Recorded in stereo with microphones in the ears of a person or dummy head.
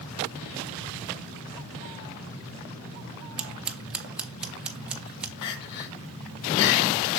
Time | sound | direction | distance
3.4 | scissors | 5° right (ahead or behind) | 0.6 m
5.4 | crying | 60° left (ahead or behind) | 3 m